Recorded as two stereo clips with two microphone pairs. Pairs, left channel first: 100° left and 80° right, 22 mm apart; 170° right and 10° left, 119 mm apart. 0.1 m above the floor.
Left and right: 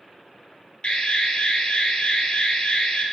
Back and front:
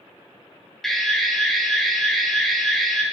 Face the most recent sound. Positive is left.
turn(degrees=105)